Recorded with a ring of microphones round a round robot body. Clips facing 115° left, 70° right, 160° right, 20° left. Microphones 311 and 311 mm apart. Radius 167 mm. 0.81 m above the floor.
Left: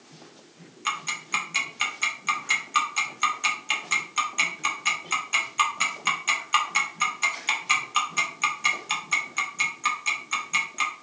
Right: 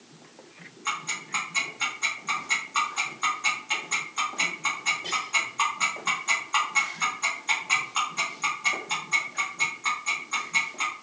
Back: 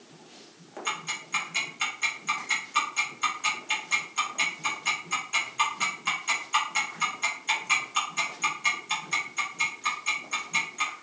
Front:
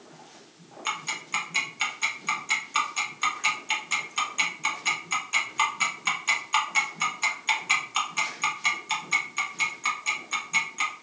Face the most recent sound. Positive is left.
turn(degrees=90)